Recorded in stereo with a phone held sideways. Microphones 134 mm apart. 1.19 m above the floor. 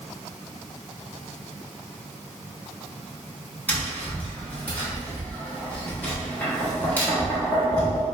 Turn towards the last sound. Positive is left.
turn(degrees=15)  # may be behind; listen again after turning